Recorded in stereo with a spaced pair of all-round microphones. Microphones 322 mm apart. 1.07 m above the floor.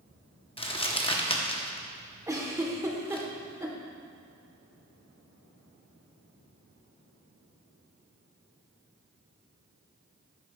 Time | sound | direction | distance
0.6 | crumpling | 20° left (ahead or behind) | 0.7 m
2.3 | a giggle | 10° right (ahead or behind) | 0.9 m